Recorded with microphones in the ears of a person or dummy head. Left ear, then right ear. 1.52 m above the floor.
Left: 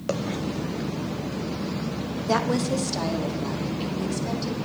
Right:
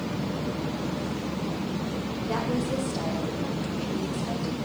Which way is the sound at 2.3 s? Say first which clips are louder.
Left 5 dB; 80° left.